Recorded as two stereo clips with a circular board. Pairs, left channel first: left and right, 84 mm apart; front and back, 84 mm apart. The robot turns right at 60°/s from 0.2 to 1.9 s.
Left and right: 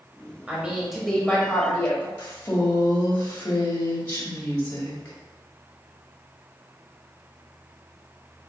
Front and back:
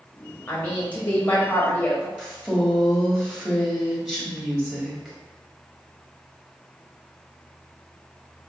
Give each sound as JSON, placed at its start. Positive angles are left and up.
{"t": 0.5, "sound": "a woman speaking", "azimuth_deg": -40, "distance_m": 0.9}
{"t": 2.2, "sound": "a woman speaking", "azimuth_deg": 110, "distance_m": 1.0}